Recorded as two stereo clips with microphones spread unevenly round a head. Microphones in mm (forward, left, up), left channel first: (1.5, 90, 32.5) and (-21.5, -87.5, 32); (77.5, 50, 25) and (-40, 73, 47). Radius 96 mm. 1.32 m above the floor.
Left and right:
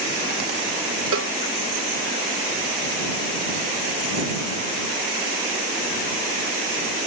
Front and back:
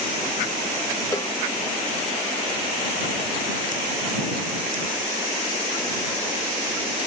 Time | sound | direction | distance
1.1 | a cowbell | 85° right | ?